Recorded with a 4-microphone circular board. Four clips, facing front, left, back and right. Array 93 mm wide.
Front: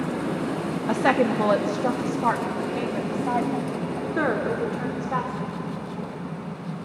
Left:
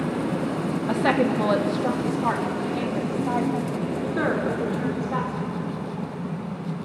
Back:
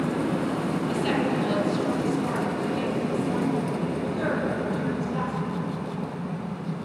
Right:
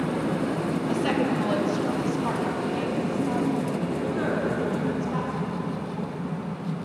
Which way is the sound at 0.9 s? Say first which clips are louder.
Left 5 dB, front 7 dB; 30° left.